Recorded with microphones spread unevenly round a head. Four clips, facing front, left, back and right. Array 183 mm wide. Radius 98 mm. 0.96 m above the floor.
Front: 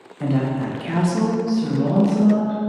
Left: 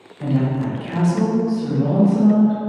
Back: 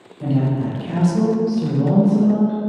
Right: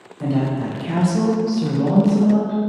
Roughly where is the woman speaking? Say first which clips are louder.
Even, back 1 dB; ahead.